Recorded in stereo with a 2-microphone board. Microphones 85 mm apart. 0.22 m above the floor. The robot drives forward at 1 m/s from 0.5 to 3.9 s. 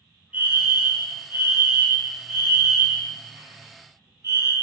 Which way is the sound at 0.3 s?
25° right (ahead or behind).